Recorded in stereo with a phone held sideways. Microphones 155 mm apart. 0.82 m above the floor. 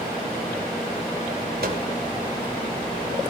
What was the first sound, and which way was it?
A microwave, 75° right (ahead or behind).